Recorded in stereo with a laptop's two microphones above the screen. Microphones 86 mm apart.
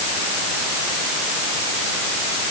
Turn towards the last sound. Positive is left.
No sound to turn to.